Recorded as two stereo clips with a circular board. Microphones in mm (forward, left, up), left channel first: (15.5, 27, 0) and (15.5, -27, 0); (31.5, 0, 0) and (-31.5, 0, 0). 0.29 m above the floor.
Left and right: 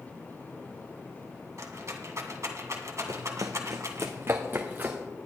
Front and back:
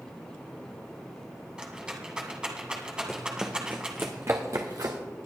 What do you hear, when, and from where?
1.6 s a rattle: 105° right, 1.7 m
3.1 s running footsteps: 85° right, 1.3 m; by 5.0 s 150° right, 2 m